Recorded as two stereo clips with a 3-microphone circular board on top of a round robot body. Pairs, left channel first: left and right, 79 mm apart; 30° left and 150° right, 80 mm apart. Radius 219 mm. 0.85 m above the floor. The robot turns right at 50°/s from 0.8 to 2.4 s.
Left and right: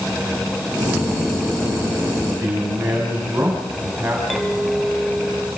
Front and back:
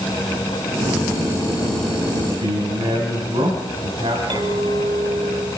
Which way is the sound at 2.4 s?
155° right.